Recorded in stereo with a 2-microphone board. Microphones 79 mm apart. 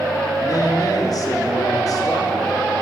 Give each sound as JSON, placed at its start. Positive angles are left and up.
{"t": 0.4, "sound": "a man speaking", "side_deg": 50, "distance_m": 1.4}